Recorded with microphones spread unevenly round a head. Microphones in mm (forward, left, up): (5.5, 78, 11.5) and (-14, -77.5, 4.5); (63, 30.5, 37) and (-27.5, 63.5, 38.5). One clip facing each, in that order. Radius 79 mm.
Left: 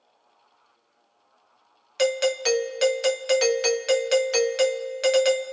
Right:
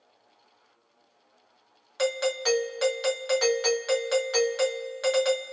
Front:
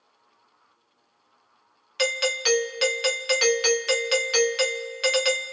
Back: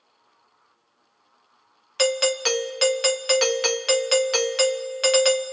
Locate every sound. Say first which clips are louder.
2.0 s a doorbell: left 4 dB, back 4 dB; 130° left, 0.6 m